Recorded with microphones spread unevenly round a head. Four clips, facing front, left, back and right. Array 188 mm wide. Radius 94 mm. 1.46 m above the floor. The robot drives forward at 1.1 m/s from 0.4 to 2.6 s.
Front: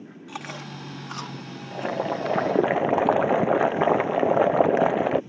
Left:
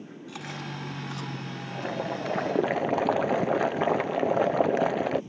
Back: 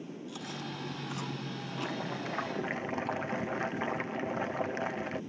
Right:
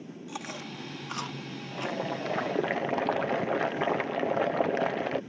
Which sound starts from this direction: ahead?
Boiling, at 1.7 s.